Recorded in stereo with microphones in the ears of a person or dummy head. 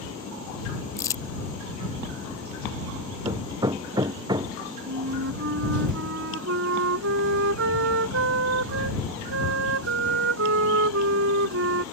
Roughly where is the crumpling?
Centre.